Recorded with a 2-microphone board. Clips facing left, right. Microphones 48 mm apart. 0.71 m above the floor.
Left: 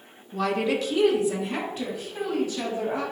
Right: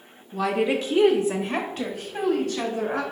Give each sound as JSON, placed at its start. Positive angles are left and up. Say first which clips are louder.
{"t": 0.3, "sound": "a woman speaking", "louder": "right 2 dB", "side_deg": 0, "distance_m": 0.5}